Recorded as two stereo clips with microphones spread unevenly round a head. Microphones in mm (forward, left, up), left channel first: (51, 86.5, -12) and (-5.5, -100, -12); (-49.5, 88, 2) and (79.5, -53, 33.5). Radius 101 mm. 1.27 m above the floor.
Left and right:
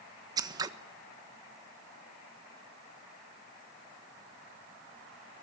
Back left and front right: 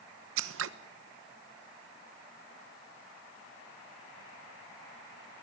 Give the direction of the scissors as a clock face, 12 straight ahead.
1 o'clock.